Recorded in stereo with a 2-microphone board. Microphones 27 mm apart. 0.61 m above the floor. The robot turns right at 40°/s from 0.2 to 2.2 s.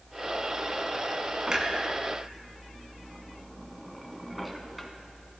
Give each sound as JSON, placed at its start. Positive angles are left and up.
{"t": 1.5, "sound": "a clunk", "side_deg": -35, "distance_m": 1.4}